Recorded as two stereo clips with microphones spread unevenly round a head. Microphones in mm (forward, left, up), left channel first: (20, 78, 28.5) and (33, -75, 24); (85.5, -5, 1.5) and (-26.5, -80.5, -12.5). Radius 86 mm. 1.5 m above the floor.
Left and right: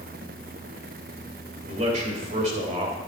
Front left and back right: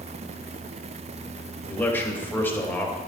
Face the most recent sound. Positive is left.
turn(degrees=-40)